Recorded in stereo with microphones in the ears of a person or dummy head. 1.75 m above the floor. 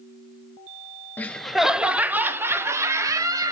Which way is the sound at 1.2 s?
10° left (ahead or behind).